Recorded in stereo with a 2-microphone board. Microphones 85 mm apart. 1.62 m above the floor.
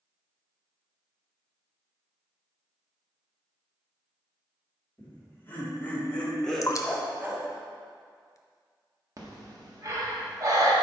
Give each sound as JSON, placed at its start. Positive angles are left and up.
{"t": 5.0, "sound": "laughter", "side_deg": 30, "distance_m": 2.5}
{"t": 6.6, "sound": "dripping", "side_deg": 40, "distance_m": 0.6}
{"t": 9.2, "sound": "breathing", "side_deg": -45, "distance_m": 1.5}